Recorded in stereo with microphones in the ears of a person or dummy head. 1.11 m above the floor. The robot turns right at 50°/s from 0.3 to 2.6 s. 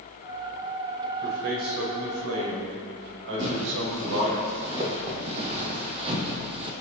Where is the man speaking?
135° right, 4 m; by 4.4 s 65° right, 4 m.